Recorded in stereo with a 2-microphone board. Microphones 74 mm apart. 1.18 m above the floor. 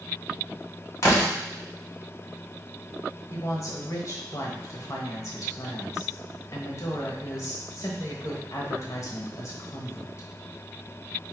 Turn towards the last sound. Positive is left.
turn(degrees=45)  # may be behind; listen again after turning